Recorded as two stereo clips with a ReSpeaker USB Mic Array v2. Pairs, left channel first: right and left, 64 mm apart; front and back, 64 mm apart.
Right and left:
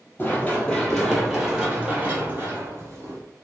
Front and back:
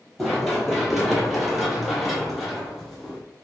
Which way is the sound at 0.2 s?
100° right.